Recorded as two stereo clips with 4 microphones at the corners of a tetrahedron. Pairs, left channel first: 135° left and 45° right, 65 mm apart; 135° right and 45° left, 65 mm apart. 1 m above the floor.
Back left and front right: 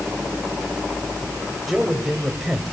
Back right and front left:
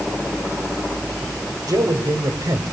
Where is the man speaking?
40° left, 4 m.